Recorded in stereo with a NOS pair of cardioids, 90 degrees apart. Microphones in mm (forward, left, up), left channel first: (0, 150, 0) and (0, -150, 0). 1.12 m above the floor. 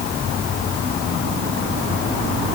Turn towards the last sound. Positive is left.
No sound to turn to.